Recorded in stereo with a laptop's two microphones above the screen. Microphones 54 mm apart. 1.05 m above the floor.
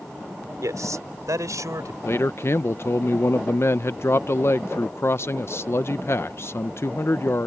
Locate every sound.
0.6 s a man speaking: 80° right; by 1.9 s 85° right
2.0 s a man speaking: 50° left (ahead or behind)